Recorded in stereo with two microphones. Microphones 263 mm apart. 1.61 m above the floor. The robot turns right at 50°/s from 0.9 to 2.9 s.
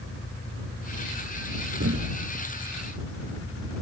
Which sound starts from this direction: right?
A thud, at 1.8 s.